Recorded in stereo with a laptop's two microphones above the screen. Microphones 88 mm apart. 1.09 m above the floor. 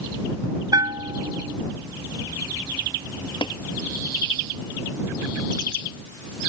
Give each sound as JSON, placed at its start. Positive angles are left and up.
{"t": 0.7, "sound": "a bell", "side_deg": -45}
{"t": 3.4, "sound": "tapping", "side_deg": 65}